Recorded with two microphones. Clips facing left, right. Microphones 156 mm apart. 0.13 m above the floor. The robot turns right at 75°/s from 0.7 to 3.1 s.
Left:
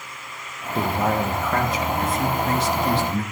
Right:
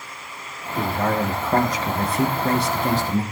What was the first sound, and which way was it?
A man speaking, 150° left.